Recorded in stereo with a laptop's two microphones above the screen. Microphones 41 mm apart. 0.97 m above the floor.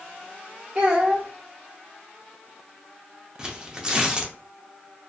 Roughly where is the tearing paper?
Centre.